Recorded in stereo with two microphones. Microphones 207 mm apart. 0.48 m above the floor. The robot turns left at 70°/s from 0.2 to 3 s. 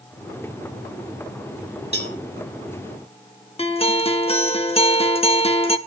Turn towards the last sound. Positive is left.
turn(degrees=30)  # may be behind; listen again after turning